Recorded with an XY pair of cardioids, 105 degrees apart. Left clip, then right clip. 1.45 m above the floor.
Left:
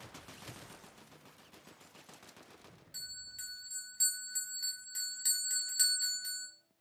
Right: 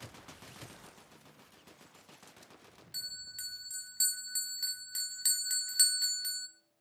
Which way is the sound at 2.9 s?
40° right.